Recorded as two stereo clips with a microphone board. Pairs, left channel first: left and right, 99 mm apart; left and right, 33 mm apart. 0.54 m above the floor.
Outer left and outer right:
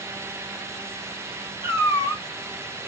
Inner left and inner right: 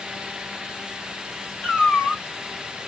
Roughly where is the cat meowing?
Left.